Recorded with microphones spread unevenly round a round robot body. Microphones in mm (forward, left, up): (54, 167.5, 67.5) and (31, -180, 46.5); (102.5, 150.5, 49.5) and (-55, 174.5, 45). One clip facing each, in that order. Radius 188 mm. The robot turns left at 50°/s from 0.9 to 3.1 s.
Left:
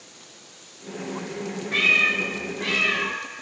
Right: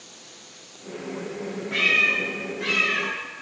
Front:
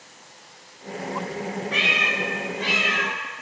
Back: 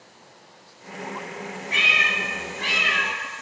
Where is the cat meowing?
175° right, 1.7 m; by 3.1 s 115° left, 1.7 m.